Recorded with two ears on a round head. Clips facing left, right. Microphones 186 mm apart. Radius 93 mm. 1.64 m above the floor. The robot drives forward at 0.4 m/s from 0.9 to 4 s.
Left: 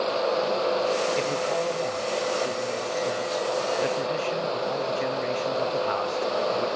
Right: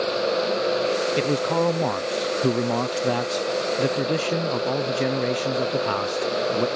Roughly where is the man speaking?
Right.